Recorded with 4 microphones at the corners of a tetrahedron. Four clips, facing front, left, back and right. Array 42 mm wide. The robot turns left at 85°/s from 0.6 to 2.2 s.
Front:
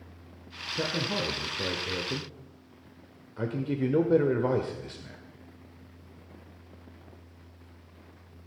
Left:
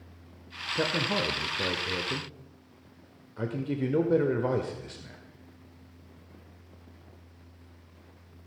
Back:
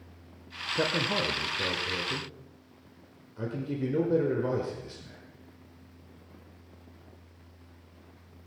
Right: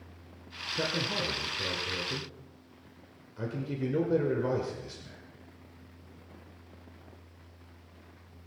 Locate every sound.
0.8 s a man speaking: 155° left, 1.1 m; by 5.2 s 30° left, 1.1 m